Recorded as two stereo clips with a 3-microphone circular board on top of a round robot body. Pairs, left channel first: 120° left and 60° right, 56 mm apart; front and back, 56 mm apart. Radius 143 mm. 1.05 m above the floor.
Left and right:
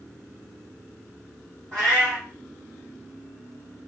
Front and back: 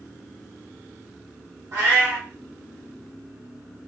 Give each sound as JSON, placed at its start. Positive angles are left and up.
{"t": 1.7, "sound": "a cat meowing", "azimuth_deg": -145, "distance_m": 1.4}